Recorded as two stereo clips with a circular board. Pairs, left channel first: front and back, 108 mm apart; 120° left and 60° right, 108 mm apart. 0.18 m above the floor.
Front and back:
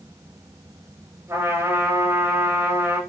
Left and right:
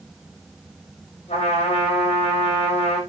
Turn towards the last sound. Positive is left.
turn(degrees=115)